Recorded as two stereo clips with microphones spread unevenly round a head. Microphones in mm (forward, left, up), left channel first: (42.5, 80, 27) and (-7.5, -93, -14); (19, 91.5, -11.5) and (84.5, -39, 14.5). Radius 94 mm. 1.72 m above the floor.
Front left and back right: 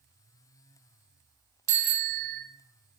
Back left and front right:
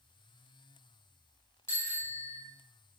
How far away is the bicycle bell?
About 5 m.